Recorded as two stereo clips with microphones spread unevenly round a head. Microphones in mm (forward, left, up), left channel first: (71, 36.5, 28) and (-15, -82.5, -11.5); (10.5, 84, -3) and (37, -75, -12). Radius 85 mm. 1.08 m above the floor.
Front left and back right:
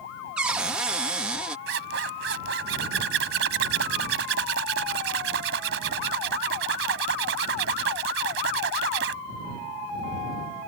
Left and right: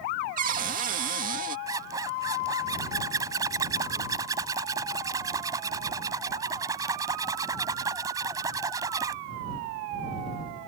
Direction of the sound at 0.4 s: 45° right.